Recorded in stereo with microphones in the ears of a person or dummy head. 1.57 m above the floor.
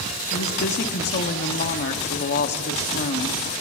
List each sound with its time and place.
0.3 s a woman speaking: 35° left (ahead or behind), 0.9 m